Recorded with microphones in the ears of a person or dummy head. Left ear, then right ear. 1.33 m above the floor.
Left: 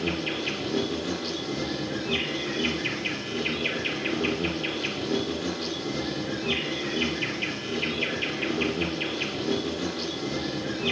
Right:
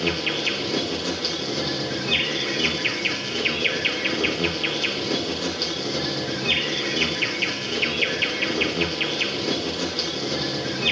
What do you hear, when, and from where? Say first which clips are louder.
0.0 s an insect: right 5 dB; 35° right (ahead or behind), 4.5 m